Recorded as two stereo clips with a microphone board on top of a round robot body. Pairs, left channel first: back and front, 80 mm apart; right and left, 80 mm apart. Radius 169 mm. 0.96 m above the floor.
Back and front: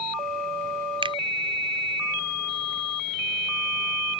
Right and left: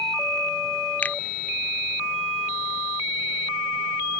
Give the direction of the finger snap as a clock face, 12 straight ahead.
1 o'clock.